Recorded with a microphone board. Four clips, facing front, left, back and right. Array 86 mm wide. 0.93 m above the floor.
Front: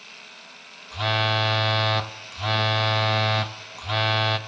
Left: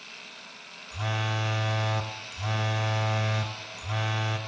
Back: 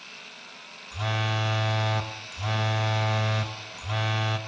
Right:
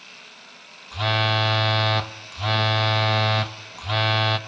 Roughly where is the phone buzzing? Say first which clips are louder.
Right 8 dB, front 6 dB; ahead right.